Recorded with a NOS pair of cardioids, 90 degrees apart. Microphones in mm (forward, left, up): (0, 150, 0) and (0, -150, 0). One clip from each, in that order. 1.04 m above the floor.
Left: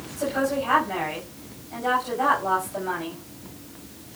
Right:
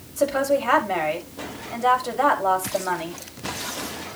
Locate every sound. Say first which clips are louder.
0.2 s a woman speaking: right 4 dB; 60° right, 7.5 m